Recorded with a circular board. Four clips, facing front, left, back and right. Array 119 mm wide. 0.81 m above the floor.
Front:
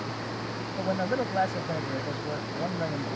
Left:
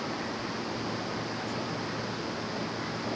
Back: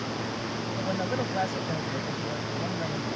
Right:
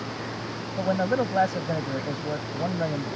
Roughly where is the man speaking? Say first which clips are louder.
Right 10 dB, front 3 dB; right.